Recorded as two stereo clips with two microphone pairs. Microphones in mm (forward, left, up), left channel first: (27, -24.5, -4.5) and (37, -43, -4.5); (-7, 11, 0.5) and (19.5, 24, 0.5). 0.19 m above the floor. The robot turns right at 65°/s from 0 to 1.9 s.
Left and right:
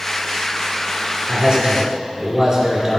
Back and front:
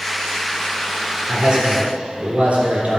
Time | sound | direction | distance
1.3 | a man speaking | 45° right | 2.5 m